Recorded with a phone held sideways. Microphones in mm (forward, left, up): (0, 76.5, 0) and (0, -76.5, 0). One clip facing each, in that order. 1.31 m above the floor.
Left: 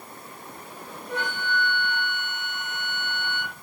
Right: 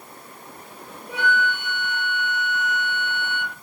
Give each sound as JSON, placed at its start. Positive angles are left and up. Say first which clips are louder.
{"t": 1.1, "sound": "a flute", "louder": "right 5 dB", "side_deg": -10, "distance_m": 0.9}